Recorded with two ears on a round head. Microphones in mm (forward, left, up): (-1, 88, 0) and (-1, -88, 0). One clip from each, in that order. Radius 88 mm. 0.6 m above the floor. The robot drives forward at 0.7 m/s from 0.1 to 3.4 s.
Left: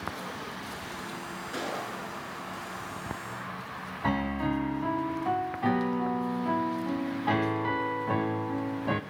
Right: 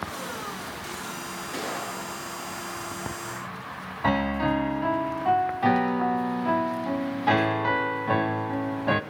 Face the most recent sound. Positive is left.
turn(degrees=-20)  # may be behind; listen again after turning